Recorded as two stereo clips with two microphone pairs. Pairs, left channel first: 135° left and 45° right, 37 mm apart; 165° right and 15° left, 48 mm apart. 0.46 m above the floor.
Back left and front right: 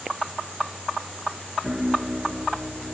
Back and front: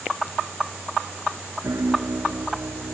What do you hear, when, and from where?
1.6 s a piano: 30° left